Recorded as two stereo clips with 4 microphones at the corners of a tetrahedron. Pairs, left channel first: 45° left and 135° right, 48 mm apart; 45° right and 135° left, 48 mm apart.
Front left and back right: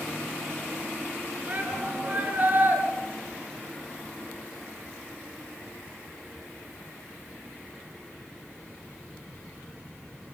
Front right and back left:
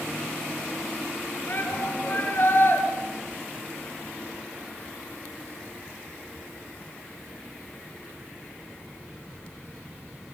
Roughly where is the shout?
Right.